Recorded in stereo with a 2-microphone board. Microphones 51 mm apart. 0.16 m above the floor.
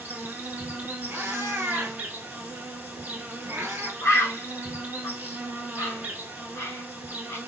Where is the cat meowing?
50° right (ahead or behind), 1.0 m.